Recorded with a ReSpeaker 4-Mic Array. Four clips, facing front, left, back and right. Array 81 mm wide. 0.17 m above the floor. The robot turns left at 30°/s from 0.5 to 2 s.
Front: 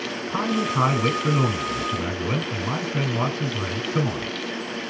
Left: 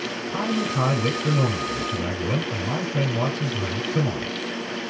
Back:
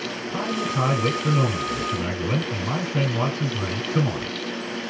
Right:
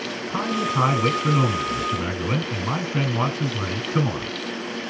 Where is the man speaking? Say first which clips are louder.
Right 1 dB, front 3 dB; 35° right, 2.0 m; by 4.3 s 80° right, 2.0 m.